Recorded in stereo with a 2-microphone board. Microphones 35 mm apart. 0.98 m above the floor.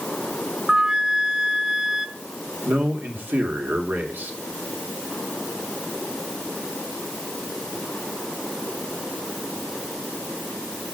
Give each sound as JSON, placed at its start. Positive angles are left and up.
{"t": 0.7, "sound": "a flute", "side_deg": -20, "distance_m": 0.6}
{"t": 2.6, "sound": "a man speaking", "side_deg": -65, "distance_m": 2.0}